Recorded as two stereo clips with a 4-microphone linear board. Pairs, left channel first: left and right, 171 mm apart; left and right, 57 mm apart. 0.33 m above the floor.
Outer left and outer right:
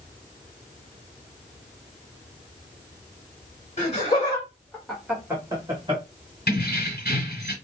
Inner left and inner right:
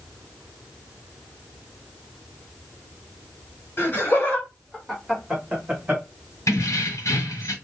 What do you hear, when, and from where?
3.8 s laughter: 35° left (ahead or behind), 1.8 m; by 6.0 s 35° right (ahead or behind), 1.7 m
6.5 s keys jangling: 65° left (ahead or behind), 1.4 m